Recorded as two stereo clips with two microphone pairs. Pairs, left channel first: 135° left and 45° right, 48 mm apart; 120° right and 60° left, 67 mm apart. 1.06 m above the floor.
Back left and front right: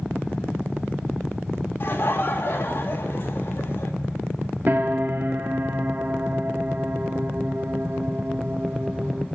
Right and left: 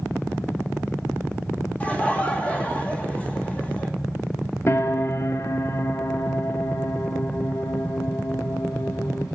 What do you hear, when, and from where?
1.8 s laughter: 170° left, 2.5 m
4.7 s a piano: 80° right, 0.9 m